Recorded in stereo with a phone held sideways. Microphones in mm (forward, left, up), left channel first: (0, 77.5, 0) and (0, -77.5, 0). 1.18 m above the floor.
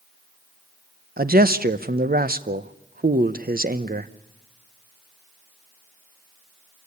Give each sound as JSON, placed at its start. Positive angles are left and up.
{"t": 1.2, "sound": "a man speaking", "side_deg": -70, "distance_m": 0.9}